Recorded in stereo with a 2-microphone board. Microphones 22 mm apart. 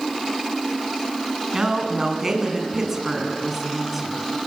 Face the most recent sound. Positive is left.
turn(degrees=-5)  # may be behind; listen again after turning